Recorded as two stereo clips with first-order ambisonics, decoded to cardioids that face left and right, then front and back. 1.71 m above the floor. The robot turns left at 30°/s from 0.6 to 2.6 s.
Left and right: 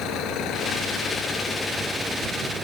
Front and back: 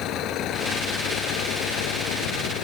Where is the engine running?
50° left; by 2.6 s 10° right.